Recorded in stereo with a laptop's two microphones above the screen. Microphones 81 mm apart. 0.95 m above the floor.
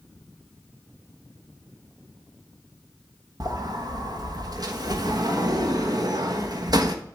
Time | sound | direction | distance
3.4 | a sliding door | 55° right (ahead or behind) | 1.0 m